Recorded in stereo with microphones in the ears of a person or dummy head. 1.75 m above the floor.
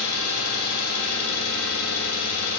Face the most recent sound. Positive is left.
turn(degrees=75)  # may be behind; listen again after turning